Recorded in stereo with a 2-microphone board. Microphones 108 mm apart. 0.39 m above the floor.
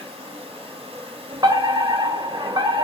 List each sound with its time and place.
0.0 s an insect: 60° right (ahead or behind), 4.5 m
1.4 s a fire alarm: 40° right (ahead or behind), 2.5 m